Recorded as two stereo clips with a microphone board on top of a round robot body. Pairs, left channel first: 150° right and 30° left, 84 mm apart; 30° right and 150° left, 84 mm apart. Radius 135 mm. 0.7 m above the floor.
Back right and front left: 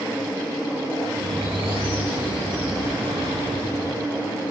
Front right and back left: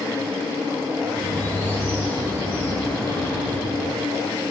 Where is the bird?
35° left, 3 m.